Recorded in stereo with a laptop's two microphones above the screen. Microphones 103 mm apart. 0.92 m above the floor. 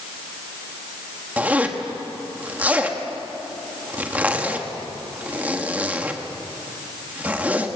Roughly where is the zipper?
Centre.